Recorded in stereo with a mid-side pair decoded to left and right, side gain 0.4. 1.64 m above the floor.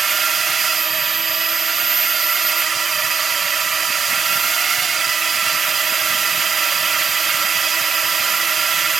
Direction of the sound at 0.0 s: 45° right.